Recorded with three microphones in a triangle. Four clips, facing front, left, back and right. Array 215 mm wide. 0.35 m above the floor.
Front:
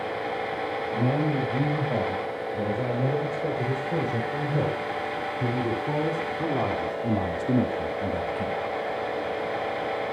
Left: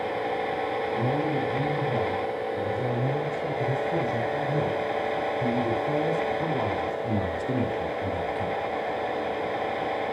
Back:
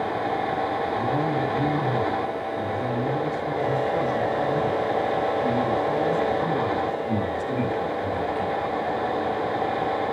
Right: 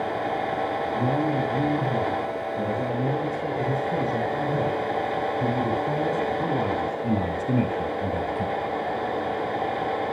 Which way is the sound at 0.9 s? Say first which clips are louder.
Right 3 dB, back 1 dB; 25° right.